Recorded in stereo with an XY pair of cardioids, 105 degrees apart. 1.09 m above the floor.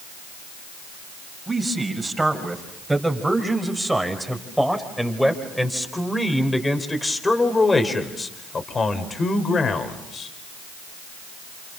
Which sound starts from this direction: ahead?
A man speaking, at 1.5 s.